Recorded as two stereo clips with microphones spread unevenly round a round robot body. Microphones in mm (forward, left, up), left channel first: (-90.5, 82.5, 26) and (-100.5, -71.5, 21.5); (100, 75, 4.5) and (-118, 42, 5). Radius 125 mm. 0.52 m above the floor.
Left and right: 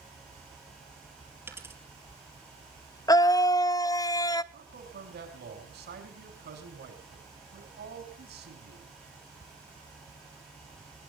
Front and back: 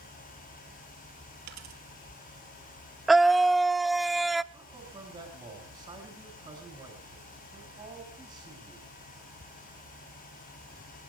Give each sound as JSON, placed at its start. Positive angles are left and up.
{"t": 1.5, "sound": "a dropped coin", "azimuth_deg": -170, "distance_m": 4.0}
{"t": 3.1, "sound": "a scream", "azimuth_deg": 100, "distance_m": 0.6}
{"t": 4.5, "sound": "a man speaking", "azimuth_deg": -95, "distance_m": 5.0}